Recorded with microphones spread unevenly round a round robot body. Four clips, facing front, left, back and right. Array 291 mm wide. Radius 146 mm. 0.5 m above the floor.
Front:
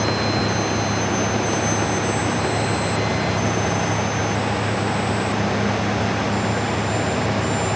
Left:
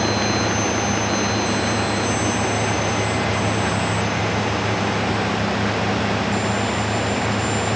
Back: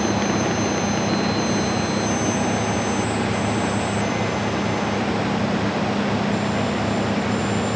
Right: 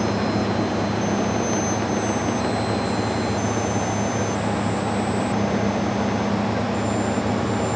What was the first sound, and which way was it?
Only background noise.